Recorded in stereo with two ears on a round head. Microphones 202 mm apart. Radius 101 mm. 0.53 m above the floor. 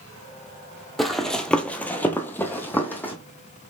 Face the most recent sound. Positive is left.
turn(degrees=10)  # may be behind; listen again after turning